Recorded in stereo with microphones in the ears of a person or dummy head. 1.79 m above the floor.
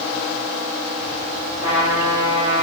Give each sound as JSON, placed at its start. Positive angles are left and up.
{"t": 1.6, "sound": "a trumpet", "side_deg": -20, "distance_m": 4.5}